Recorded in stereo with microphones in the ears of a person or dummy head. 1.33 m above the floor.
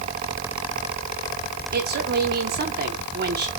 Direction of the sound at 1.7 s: 50° right (ahead or behind).